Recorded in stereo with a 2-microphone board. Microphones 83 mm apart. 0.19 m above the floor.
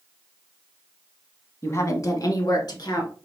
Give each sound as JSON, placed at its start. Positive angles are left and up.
{"t": 1.6, "sound": "a woman speaking", "side_deg": 35, "distance_m": 1.2}